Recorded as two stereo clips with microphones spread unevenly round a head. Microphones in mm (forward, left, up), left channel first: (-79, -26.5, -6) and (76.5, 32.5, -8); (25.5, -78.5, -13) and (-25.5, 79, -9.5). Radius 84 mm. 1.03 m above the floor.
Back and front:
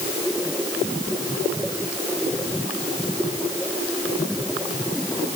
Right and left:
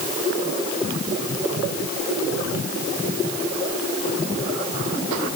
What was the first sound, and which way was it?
Only background noise.